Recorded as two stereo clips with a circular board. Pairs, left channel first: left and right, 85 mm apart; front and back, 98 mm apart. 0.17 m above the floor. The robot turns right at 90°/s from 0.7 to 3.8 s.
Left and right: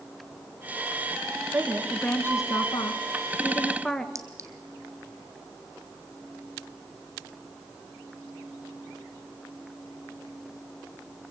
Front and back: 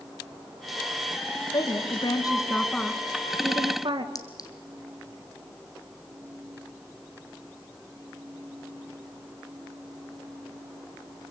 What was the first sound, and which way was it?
A woman speaking, 30° right.